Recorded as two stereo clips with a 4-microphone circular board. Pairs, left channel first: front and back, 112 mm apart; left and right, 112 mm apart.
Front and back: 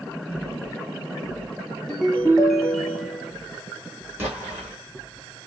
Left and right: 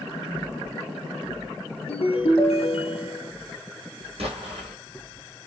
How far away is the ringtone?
About 1.5 m.